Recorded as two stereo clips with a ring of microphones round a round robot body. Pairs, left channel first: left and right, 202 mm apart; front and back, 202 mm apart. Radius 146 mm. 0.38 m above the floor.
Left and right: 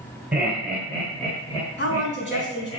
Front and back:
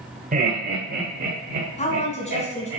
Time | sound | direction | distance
0.3 | laughter | 170° right | 1.5 m
1.8 | a woman speaking | 55° left | 3.5 m